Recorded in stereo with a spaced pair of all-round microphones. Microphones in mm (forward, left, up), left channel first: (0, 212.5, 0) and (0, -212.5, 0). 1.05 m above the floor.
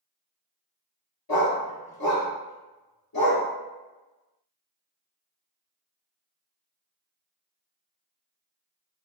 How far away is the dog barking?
About 1.0 m.